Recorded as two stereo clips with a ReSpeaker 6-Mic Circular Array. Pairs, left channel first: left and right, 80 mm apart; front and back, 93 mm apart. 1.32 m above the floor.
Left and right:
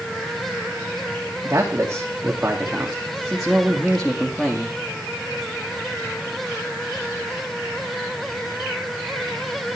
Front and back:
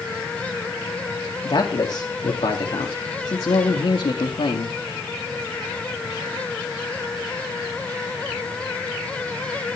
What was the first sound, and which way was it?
A man speaking, 35° right.